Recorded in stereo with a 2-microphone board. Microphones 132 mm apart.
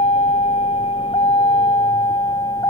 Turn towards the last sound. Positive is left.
turn(degrees=30)  # may be behind; listen again after turning